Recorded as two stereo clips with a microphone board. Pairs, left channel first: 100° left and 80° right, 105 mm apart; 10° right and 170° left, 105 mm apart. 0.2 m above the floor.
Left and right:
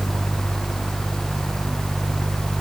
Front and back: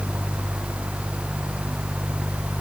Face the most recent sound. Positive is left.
No sound to turn to.